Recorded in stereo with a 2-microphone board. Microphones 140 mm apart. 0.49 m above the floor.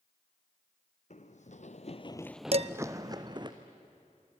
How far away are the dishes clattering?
About 0.5 m.